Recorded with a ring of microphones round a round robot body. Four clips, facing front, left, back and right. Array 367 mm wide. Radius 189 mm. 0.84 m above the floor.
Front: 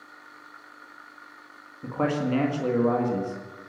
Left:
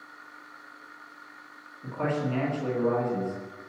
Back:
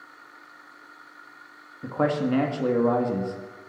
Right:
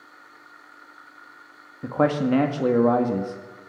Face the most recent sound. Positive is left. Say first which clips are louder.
# right 8 dB, back 2 dB
turn(degrees=-95)